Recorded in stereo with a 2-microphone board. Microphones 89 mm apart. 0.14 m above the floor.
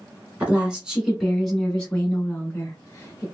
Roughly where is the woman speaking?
Centre.